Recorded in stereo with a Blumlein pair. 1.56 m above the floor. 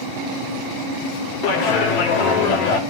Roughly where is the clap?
Ahead left.